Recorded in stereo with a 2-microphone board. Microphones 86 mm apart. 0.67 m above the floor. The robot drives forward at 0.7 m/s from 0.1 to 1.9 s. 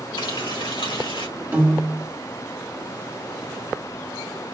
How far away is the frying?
About 2.5 m.